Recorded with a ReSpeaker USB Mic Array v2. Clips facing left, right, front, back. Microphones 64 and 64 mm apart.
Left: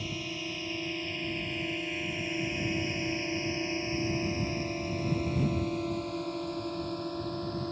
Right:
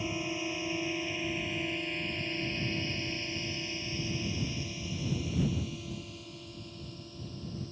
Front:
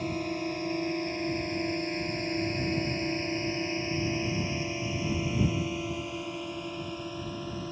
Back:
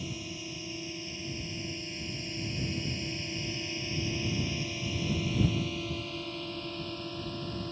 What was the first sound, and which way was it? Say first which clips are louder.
A drone: right 3 dB, front 9 dB; 25° right.